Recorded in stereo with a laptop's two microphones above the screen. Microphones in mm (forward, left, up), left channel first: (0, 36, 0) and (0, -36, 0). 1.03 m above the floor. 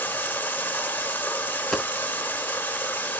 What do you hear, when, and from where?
0.0 s running water: 25° left (ahead or behind), 0.8 m
1.7 s a dropped coin: centre (ahead or behind), 0.5 m